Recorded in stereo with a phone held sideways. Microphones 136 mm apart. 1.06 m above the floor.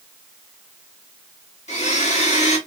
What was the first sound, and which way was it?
A blender, 55° left (ahead or behind).